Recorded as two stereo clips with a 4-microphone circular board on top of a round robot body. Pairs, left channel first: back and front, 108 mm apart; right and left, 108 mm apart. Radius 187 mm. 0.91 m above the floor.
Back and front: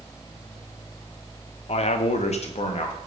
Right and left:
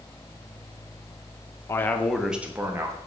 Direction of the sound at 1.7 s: 155° right.